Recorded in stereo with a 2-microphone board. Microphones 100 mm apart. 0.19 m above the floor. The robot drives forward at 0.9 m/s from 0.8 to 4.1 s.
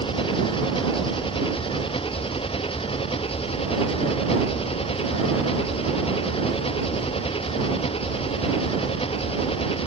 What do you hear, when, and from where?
0.0 s an engine running: 60° left (ahead or behind); by 9.9 s 70° left (ahead or behind)